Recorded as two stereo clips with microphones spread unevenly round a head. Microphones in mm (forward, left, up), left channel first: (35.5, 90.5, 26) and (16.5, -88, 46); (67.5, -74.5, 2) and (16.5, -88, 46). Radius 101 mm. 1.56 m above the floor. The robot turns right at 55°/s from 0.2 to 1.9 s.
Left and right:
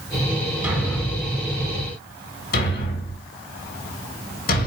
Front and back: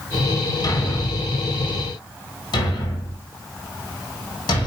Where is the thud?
25° right, 2.5 m; by 4.7 s 45° left, 2.5 m.